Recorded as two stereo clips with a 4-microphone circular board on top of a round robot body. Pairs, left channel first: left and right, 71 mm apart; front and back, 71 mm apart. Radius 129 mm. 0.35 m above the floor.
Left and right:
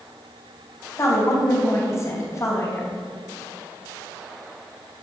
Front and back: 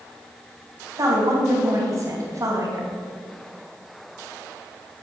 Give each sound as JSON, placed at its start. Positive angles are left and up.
{"t": 1.0, "sound": "a woman speaking", "azimuth_deg": 140, "distance_m": 4.0}